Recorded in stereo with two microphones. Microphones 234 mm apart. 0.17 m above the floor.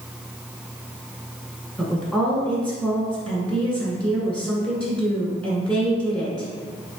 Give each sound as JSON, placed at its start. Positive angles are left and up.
{"t": 1.8, "sound": "a woman speaking", "side_deg": 5, "distance_m": 1.5}